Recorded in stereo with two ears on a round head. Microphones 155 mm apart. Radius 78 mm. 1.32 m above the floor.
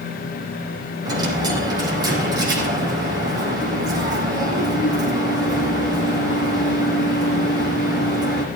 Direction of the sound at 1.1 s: 25° right (ahead or behind).